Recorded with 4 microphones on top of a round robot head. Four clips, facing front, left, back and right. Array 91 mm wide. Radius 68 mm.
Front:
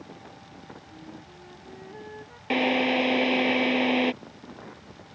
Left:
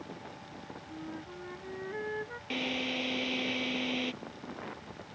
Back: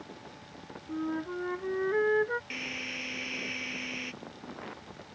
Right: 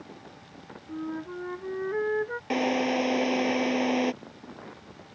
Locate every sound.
0.9 s a flute: 140° right
2.5 s a drill: 40° right